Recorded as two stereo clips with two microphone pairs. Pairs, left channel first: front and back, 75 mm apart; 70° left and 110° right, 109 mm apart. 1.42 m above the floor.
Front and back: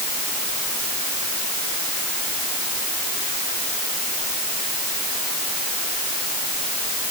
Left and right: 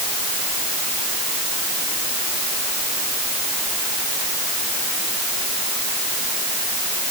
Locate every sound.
Only background noise.